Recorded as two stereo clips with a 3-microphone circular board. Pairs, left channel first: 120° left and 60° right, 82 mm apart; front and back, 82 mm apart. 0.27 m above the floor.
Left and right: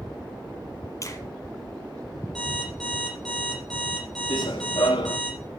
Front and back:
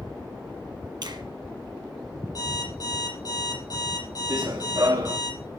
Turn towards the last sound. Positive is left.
turn(degrees=140)